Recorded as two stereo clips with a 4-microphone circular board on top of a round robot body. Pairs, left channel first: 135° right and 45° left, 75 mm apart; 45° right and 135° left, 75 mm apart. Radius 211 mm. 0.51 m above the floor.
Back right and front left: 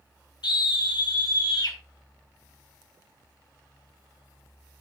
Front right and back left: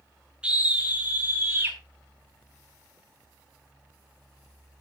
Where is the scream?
150° right, 4 m; by 1.8 s 165° right, 4.5 m.